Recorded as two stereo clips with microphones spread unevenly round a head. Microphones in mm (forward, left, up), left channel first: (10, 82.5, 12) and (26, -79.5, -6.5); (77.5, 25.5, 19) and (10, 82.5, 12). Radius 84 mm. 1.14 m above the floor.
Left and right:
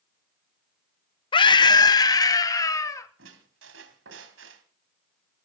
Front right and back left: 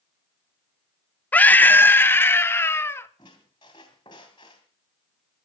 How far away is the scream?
About 1.0 m.